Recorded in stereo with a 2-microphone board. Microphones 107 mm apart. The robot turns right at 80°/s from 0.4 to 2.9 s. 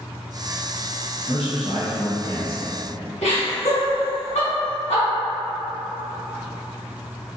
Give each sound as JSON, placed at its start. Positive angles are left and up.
{"t": 1.3, "sound": "a man speaking", "azimuth_deg": 60, "distance_m": 1.0}
{"t": 3.2, "sound": "laughter", "side_deg": 85, "distance_m": 1.4}